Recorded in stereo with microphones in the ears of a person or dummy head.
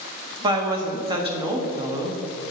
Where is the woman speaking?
25° right (ahead or behind), 0.8 m.